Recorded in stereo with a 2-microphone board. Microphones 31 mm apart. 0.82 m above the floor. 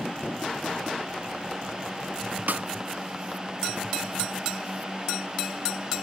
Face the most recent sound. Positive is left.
turn(degrees=-70)  # may be behind; listen again after turning